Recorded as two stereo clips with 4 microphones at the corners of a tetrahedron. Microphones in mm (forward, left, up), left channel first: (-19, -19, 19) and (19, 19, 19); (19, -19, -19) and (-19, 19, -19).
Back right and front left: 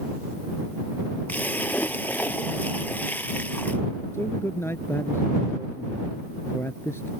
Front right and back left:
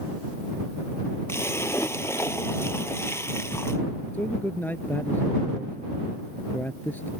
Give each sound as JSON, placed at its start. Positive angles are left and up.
{"t": 1.3, "sound": "a splash", "azimuth_deg": -80}
{"t": 4.1, "sound": "a man speaking", "azimuth_deg": -95}